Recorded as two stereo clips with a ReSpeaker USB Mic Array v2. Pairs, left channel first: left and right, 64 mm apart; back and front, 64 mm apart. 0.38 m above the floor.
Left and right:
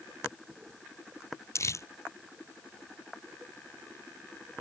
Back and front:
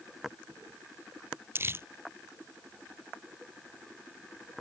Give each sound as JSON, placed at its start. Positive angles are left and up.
{"t": 1.6, "sound": "crumpling", "azimuth_deg": 50}